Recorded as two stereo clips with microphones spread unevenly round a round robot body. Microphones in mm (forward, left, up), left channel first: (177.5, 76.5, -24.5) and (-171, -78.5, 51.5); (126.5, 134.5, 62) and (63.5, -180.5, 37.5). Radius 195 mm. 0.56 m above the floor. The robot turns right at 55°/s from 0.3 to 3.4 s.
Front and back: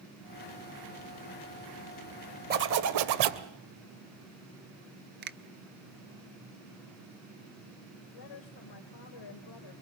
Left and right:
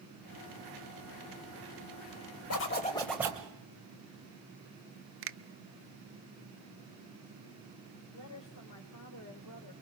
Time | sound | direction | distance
2.5 | a zipper | 135° left | 1.2 m
5.2 | a finger snap | 90° right | 0.7 m
8.1 | a woman speaking | 45° left | 2.5 m